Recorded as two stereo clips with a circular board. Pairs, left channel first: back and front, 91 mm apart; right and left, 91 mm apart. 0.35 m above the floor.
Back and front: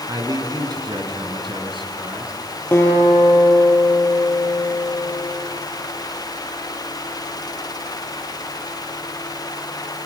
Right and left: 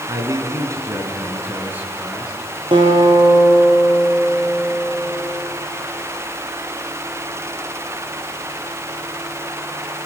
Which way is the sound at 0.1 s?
45° left.